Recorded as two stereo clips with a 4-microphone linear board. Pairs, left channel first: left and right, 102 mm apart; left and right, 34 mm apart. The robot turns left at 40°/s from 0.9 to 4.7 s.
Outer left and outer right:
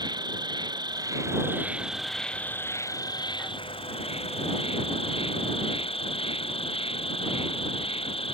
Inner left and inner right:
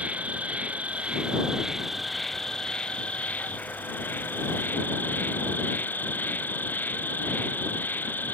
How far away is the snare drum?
I don't hear a snare drum.